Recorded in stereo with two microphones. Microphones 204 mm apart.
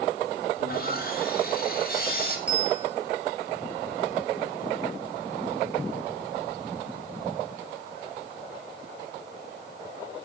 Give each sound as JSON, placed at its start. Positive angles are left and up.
{"t": 0.6, "sound": "sawing", "side_deg": 50, "distance_m": 5.5}
{"t": 2.5, "sound": "a bell", "side_deg": -5, "distance_m": 10.0}